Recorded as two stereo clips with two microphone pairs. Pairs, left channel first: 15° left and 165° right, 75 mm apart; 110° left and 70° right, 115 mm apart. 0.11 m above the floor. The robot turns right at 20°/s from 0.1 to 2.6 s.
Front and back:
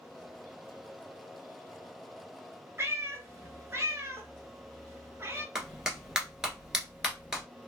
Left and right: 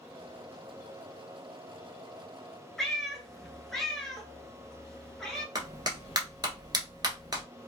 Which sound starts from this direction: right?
A clap, at 5.5 s.